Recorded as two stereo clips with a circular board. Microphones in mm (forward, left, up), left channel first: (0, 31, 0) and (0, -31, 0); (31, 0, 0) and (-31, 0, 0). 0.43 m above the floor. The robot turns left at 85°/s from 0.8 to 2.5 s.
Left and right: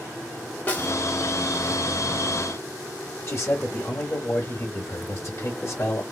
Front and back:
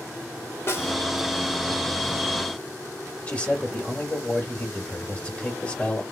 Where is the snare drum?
35° left, 1.2 m; by 0.9 s 25° left, 1.2 m.